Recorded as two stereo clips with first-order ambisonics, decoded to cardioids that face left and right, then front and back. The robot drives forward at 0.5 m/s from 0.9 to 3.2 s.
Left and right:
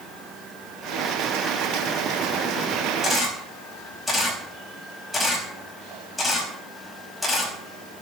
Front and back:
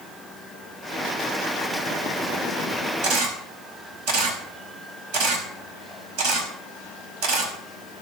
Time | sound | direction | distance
3.0 | a camera shutter | 175° left | 5.5 m